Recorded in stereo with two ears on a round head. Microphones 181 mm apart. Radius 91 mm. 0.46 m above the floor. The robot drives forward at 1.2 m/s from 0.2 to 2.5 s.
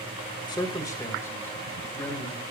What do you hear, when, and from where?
0.5 s a man speaking: 20° left (ahead or behind), 1.4 m; by 2.4 s 10° left (ahead or behind), 3.5 m